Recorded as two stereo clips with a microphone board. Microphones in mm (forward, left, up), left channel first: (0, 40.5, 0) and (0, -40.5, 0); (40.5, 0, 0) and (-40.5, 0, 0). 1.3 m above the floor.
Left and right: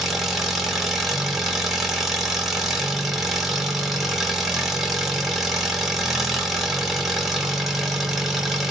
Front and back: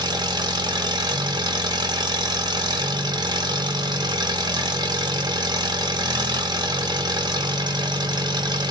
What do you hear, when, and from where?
0.0 s an engine running: straight behind, 1.1 m